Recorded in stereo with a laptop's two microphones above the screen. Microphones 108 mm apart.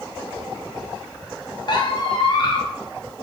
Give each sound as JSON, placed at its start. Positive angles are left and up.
{"t": 1.7, "sound": "a squeak", "side_deg": 45, "distance_m": 0.7}